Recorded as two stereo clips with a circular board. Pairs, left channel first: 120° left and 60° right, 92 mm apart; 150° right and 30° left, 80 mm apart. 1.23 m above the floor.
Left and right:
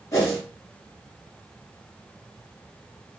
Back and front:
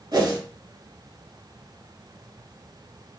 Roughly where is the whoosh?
Ahead left.